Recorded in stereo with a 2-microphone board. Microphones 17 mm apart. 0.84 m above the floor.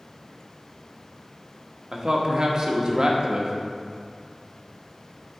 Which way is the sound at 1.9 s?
45° right (ahead or behind).